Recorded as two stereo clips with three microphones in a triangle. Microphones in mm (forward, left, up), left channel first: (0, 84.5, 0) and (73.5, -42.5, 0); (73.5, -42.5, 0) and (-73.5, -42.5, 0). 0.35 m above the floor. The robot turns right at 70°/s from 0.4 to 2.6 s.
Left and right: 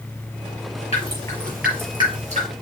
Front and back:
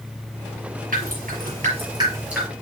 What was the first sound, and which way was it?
Dripping, 165° left.